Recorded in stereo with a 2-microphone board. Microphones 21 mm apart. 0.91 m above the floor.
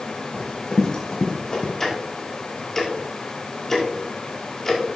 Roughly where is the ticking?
Centre.